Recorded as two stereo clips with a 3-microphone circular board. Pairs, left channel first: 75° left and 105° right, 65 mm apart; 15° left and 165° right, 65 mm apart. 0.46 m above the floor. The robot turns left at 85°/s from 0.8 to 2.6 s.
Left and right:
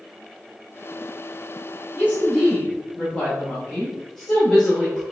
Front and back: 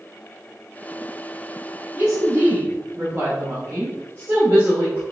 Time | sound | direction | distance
1.9 | a woman speaking | 150° right | 1.3 m